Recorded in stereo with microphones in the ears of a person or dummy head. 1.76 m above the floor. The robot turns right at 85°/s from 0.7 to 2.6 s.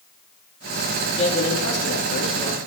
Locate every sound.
1.2 s a man speaking: 35° left, 4 m; by 2.6 s 155° left, 4 m